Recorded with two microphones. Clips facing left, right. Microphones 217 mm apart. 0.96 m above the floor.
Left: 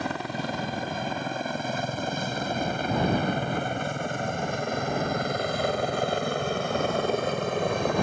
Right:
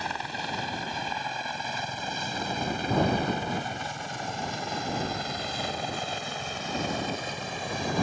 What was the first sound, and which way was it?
A helicopter, 60° left (ahead or behind).